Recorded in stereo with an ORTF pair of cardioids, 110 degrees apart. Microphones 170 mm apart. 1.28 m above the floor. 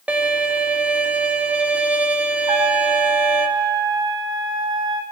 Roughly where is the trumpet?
Ahead right.